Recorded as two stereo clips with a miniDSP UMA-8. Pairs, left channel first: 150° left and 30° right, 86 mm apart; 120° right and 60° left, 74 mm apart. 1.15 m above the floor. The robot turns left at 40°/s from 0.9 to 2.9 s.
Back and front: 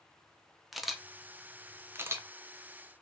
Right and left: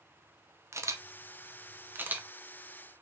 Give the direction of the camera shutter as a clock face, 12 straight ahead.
10 o'clock.